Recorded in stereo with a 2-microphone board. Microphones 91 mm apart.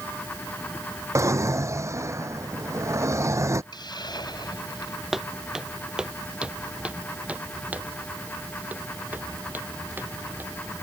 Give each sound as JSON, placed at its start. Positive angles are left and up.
{"t": 1.1, "sound": "a drawer", "side_deg": -35}
{"t": 3.7, "sound": "a hiss", "side_deg": 50}
{"t": 5.1, "sound": "footsteps", "side_deg": -5}